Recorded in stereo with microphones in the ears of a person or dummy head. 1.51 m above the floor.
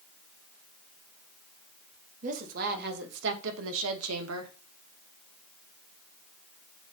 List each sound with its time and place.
2.2 s a woman speaking: 45° right (ahead or behind), 2.0 m; by 4.5 s 80° right, 1.8 m